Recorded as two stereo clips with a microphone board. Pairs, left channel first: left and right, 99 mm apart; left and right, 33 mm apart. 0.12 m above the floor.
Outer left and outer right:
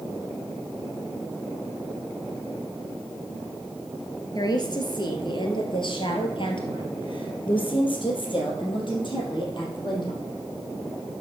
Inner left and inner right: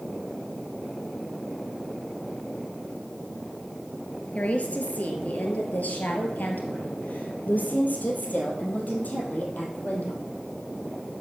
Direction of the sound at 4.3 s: 45° left (ahead or behind).